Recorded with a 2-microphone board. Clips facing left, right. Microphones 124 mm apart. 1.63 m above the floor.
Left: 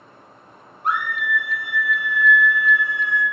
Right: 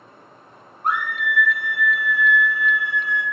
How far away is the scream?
About 0.7 m.